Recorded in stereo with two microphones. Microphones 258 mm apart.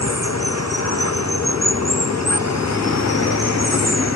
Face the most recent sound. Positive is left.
turn(degrees=85)